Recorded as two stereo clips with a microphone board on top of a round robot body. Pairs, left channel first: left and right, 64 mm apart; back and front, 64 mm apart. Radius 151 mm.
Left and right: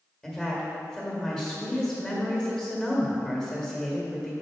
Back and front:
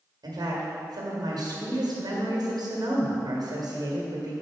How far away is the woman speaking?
About 1.9 m.